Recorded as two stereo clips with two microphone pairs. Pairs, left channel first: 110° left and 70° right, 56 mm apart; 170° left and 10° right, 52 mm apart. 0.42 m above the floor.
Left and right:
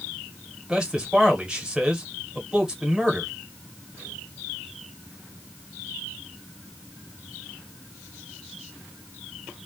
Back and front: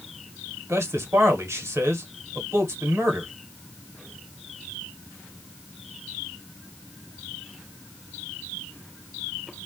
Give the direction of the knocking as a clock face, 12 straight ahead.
I don't hear knocking.